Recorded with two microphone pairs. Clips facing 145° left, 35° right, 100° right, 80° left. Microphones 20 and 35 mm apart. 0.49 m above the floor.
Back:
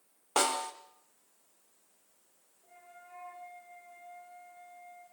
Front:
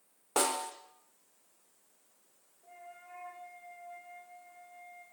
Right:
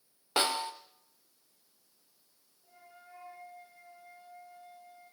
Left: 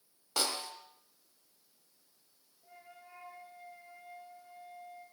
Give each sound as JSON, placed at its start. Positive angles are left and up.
{"t": 0.4, "sound": "a snare drum", "azimuth_deg": -145, "distance_m": 1.3}
{"t": 2.6, "sound": "a flute", "azimuth_deg": 15, "distance_m": 6.5}